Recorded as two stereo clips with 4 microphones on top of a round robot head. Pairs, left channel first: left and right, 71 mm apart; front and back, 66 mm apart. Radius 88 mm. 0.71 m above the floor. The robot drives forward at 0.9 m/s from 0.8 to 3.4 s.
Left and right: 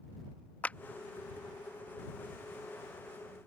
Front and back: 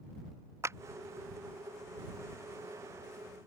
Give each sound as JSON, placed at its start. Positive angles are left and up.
{"t": 0.6, "sound": "a clap", "azimuth_deg": 155}